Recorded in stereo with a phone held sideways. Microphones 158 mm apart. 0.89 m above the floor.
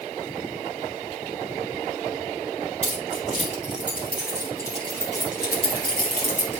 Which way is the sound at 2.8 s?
50° right (ahead or behind).